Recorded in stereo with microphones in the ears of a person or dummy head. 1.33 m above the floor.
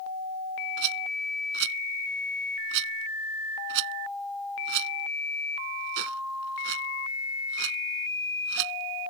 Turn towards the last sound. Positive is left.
turn(degrees=-60)  # may be behind; listen again after turning